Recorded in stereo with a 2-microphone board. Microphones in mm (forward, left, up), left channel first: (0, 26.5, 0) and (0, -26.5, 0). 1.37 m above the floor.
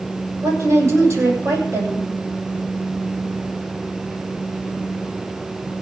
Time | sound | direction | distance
0.4 | a woman speaking | 55° right (ahead or behind) | 8.5 m